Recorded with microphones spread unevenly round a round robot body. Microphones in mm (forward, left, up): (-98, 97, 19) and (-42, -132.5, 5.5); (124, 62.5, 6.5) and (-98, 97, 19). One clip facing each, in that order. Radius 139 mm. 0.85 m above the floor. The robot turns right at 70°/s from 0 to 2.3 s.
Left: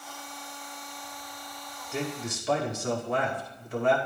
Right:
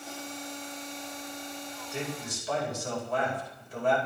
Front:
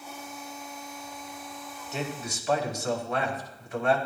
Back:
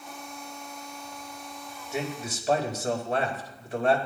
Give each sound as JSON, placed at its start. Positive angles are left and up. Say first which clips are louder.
{"t": 1.9, "sound": "a man speaking", "louder": "left 4 dB, back 2 dB", "azimuth_deg": 90, "distance_m": 4.5}